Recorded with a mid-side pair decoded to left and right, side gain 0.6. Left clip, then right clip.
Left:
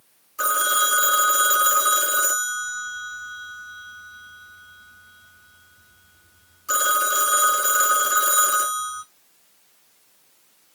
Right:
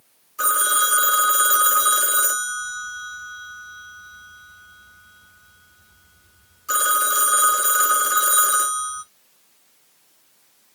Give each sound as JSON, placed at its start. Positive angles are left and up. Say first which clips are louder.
{"t": 0.4, "sound": "a phone ringing", "louder": "even", "azimuth_deg": 5, "distance_m": 0.8}